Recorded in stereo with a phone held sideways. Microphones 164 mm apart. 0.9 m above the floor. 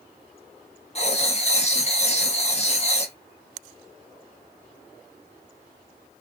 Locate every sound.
0.9 s writing: 40° left (ahead or behind), 1.1 m